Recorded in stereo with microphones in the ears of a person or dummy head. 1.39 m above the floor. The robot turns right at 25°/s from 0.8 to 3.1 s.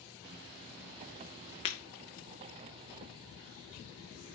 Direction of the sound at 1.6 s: 25° left (ahead or behind).